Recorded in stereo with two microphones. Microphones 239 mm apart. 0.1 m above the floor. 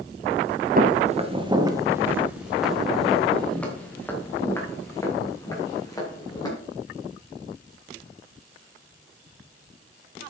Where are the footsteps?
35° right (ahead or behind), 1.6 m; by 6.5 s 15° left (ahead or behind), 6 m.